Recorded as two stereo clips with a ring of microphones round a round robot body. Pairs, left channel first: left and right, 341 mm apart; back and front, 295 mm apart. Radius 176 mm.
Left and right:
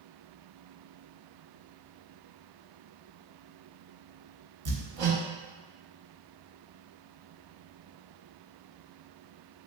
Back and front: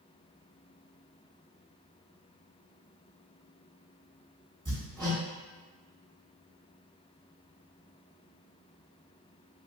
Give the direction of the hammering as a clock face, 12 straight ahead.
3 o'clock.